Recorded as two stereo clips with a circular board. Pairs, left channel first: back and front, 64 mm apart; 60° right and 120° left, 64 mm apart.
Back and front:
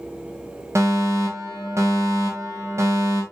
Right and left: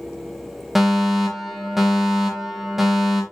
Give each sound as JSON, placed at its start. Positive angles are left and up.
{"t": 0.8, "sound": "a fire alarm", "azimuth_deg": 30, "distance_m": 3.5}